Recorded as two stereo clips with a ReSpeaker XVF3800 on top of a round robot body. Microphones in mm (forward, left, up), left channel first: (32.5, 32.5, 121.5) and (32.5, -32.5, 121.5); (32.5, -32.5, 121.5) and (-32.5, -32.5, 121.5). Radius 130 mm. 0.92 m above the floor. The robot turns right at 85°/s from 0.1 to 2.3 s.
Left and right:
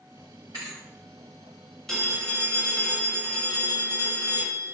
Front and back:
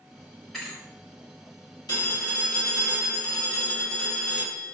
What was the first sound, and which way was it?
A thud, 85° right.